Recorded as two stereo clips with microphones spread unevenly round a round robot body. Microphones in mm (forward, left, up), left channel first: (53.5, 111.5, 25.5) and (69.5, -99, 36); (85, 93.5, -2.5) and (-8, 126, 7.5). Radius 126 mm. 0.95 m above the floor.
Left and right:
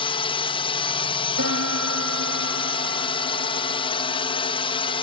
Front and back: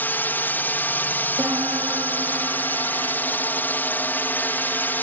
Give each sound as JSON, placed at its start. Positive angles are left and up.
{"t": 0.0, "sound": "a drone", "azimuth_deg": 40}
{"t": 1.4, "sound": "a piano", "azimuth_deg": -120}